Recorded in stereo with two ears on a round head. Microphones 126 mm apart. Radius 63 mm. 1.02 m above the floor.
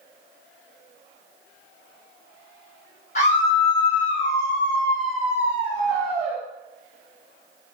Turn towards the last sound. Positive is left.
turn(degrees=-35)  # may be behind; listen again after turning